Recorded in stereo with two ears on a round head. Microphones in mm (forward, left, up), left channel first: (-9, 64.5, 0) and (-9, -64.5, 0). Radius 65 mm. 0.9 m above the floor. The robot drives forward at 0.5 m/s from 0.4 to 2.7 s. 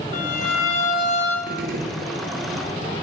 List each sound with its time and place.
0.1 s a violin: 60° left (ahead or behind), 1.6 m; by 1.4 s 45° left (ahead or behind), 1.8 m
1.5 s a gunshot: 60° right (ahead or behind), 1.4 m; by 2.1 s 65° right (ahead or behind), 1.3 m